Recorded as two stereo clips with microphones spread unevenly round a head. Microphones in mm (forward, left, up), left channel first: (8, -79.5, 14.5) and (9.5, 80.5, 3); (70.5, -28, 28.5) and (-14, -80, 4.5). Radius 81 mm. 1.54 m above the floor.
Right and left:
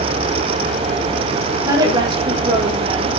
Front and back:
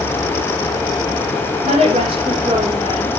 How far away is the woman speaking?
About 4 m.